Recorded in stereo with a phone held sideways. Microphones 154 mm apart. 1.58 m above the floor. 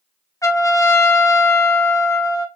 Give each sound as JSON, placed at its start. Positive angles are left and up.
{"t": 0.4, "sound": "a trumpet", "side_deg": 20, "distance_m": 0.5}